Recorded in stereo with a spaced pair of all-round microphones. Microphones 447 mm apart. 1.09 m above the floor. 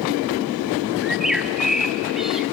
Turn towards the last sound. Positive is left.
turn(degrees=0)  # may be behind; listen again after turning